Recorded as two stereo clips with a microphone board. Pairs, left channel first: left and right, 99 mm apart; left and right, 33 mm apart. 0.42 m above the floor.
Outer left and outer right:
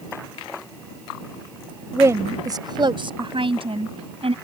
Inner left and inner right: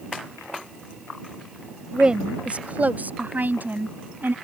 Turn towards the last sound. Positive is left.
turn(degrees=-75)  # may be behind; listen again after turning